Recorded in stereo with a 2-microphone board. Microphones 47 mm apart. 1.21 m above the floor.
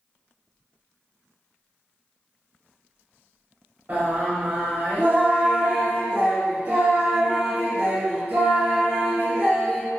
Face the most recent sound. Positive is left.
turn(degrees=-40)  # may be behind; listen again after turning